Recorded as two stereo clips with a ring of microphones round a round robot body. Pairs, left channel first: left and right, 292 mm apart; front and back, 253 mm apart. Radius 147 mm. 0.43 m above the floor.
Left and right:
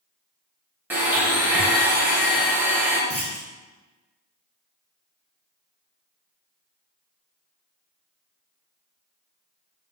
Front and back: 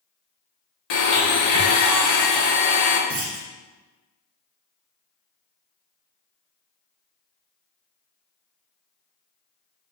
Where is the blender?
5° right, 0.7 m.